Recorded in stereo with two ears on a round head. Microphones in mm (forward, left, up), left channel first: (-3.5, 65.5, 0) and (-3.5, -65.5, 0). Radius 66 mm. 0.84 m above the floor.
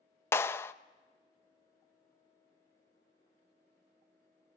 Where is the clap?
15° left (ahead or behind), 0.5 m.